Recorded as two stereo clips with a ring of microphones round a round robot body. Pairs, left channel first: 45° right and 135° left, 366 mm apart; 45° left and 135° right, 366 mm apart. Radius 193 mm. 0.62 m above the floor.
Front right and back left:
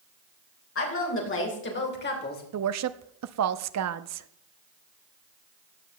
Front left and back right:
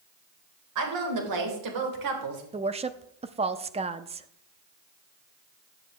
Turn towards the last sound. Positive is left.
turn(degrees=155)